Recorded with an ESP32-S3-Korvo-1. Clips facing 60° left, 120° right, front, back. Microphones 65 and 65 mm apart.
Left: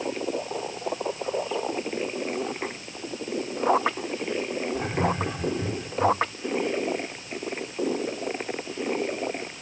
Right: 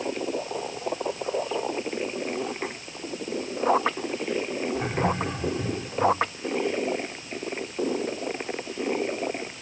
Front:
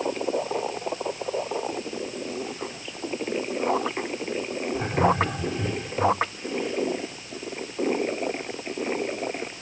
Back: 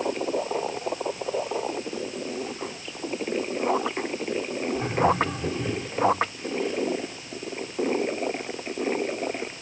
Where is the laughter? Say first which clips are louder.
Even, front 1 dB; 40° right, 5 m.